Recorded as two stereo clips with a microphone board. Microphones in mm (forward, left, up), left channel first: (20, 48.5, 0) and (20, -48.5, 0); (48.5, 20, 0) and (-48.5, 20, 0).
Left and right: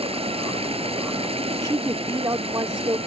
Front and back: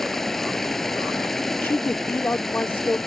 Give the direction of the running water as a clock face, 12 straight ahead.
3 o'clock.